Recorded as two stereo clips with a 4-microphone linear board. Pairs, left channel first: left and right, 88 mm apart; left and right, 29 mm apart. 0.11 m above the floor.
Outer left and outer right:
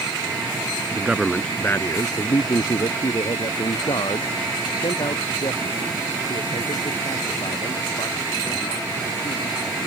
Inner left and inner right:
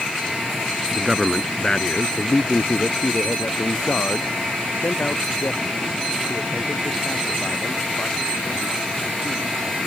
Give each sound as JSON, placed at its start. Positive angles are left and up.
{"t": 0.9, "sound": "a man speaking", "side_deg": -20}